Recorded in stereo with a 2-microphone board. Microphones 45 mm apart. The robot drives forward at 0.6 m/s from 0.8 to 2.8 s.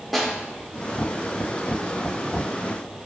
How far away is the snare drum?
About 1.2 m.